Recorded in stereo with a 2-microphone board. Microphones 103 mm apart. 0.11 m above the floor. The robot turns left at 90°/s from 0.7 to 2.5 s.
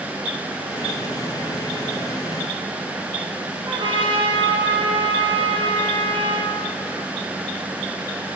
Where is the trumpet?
50° right (ahead or behind), 4.5 m.